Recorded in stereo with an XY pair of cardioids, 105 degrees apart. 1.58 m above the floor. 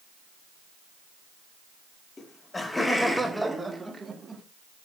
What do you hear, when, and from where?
2.2 s laughter: 30° left, 3 m; by 4.4 s 30° right, 3.5 m